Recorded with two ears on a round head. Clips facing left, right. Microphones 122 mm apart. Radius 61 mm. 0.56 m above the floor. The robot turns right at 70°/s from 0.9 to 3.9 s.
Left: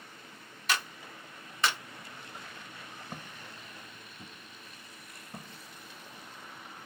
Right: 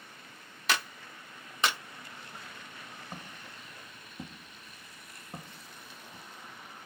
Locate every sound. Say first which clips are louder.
0.7 s a clap: right 1 dB; 55° right (ahead or behind), 0.8 m; by 1.8 s 5° right (ahead or behind), 0.8 m
3.1 s footsteps: left 1 dB; 5° left (ahead or behind), 1.1 m; by 6.2 s 10° right (ahead or behind), 1.2 m